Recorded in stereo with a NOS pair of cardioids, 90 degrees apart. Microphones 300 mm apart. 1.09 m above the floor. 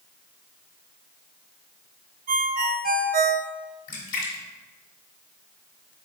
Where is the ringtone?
30° right, 0.5 m.